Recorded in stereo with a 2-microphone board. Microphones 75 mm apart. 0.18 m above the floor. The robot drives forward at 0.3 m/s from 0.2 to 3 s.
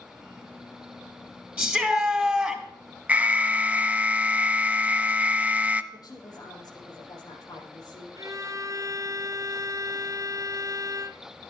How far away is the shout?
About 3 m.